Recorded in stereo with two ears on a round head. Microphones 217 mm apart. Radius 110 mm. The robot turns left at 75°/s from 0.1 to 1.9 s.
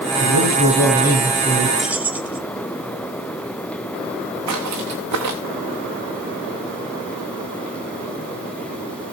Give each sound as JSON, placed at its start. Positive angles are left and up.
{"t": 0.2, "sound": "a man speaking", "azimuth_deg": 55, "distance_m": 6.0}
{"t": 1.8, "sound": "keys jangling", "side_deg": 0, "distance_m": 1.2}
{"t": 4.5, "sound": "footsteps", "side_deg": -70, "distance_m": 3.0}